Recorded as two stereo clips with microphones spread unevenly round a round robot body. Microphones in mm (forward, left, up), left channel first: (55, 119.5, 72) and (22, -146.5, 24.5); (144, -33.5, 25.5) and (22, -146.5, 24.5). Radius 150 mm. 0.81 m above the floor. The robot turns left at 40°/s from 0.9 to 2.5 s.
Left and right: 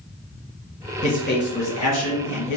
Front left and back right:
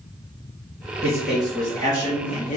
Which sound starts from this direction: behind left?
A man speaking, at 1.0 s.